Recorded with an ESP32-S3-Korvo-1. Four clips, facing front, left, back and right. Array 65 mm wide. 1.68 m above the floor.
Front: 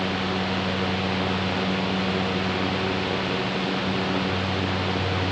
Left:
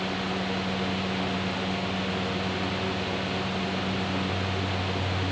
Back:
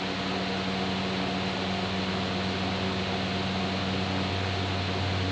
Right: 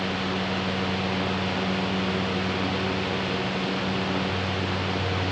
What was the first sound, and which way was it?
Only background noise.